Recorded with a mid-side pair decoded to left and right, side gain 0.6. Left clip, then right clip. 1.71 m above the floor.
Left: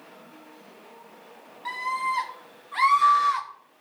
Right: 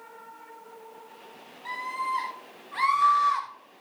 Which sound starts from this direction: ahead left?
A scream, at 1.6 s.